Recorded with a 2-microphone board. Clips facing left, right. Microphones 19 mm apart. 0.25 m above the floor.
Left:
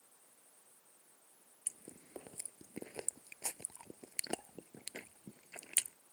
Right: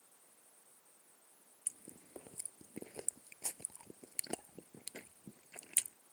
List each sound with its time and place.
1.7 s chewing: 20° left (ahead or behind)